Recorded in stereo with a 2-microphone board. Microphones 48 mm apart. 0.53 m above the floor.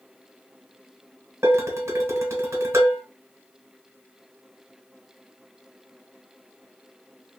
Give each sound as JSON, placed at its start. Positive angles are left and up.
{"t": 1.4, "sound": "dishes clattering", "side_deg": -75, "distance_m": 1.4}